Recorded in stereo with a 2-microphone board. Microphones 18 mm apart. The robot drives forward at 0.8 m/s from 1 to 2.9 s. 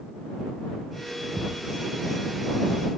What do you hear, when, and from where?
1.4 s a thud: 5° left (ahead or behind)